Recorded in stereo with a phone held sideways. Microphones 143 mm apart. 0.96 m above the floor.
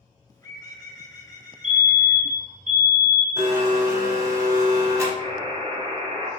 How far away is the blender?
About 0.8 m.